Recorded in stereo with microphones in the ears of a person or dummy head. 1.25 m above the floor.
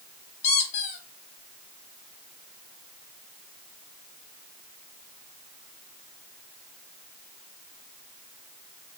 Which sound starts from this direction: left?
A squeak, at 0.4 s.